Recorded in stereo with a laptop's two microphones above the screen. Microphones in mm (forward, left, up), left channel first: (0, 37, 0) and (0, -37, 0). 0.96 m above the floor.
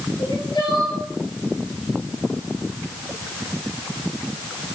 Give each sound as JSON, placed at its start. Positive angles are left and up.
{"t": 0.2, "sound": "crying", "side_deg": 75, "distance_m": 3.0}